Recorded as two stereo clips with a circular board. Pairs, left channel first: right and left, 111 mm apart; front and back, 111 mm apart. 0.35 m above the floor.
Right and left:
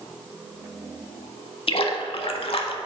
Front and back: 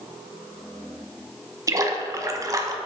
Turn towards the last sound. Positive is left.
turn(degrees=-120)